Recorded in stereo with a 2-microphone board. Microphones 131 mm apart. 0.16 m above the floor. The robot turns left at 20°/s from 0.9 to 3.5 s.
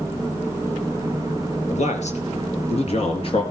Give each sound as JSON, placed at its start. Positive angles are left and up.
{"t": 1.7, "sound": "a man speaking", "azimuth_deg": 85, "distance_m": 3.5}